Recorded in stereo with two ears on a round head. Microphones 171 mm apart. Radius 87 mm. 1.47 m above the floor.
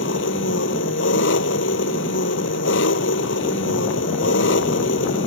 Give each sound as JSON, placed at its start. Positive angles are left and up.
{"t": 0.0, "sound": "an engine running", "side_deg": 65}